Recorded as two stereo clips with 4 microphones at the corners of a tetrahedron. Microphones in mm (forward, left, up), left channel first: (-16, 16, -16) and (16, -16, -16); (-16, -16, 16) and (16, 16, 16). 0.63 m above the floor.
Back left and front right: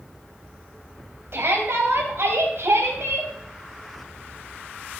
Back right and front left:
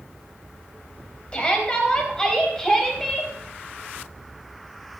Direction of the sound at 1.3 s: 70° right.